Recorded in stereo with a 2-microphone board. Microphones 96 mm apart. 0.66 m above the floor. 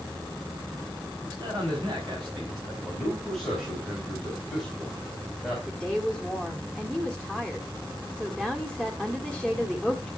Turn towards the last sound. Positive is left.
turn(degrees=-5)  # may be behind; listen again after turning